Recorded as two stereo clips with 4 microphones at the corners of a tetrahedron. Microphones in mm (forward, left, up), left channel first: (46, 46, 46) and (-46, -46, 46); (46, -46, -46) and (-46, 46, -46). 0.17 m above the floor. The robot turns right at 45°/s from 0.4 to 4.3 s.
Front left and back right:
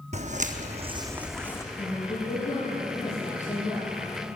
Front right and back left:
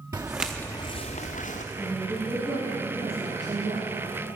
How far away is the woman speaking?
About 5.5 m.